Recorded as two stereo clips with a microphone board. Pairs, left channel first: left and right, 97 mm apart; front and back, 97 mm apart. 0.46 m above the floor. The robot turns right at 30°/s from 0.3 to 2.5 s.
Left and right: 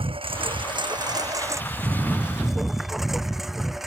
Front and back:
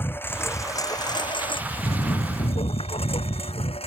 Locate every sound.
0.0 s a lawn mower: 70° right; by 3.9 s straight ahead